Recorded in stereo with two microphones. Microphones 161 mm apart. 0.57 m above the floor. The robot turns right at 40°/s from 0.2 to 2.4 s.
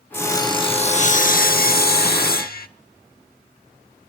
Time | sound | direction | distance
0.1 | sawing | 15° left | 0.9 m